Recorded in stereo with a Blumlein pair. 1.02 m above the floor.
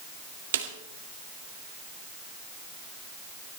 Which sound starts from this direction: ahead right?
A snare drum, at 0.5 s.